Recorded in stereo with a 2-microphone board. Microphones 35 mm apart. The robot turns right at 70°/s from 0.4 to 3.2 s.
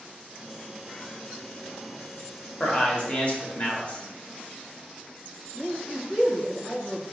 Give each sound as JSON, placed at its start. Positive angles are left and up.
{"t": 2.6, "sound": "a man speaking", "azimuth_deg": 50, "distance_m": 0.9}
{"t": 5.5, "sound": "a man speaking", "side_deg": -15, "distance_m": 1.2}